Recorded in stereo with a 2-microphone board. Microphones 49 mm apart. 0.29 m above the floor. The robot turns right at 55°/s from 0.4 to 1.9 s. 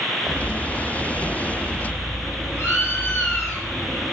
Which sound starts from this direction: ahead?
A bird, at 0.3 s.